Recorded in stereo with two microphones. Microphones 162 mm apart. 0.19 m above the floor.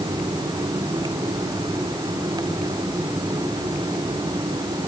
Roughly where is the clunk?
No clunk in this recording.